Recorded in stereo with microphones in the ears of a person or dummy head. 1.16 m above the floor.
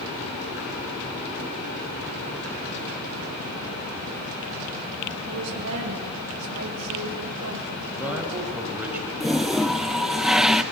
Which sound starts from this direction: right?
A woman speaking, at 5.3 s.